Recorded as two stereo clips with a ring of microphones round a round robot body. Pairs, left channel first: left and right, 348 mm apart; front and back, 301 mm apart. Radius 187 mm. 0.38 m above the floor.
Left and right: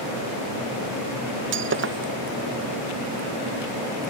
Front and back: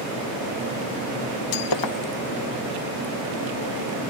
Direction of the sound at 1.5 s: 30° right.